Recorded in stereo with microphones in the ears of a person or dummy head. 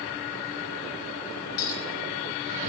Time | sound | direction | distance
1.6 | a clink | 75° left (ahead or behind) | 3 m